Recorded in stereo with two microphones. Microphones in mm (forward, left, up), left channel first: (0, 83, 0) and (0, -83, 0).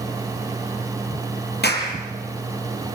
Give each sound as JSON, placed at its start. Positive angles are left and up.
{"t": 1.6, "sound": "a clap", "side_deg": 75, "distance_m": 6.0}